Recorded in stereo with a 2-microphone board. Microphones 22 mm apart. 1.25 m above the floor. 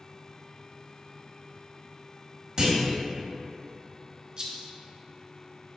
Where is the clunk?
40° right (ahead or behind), 1.4 m.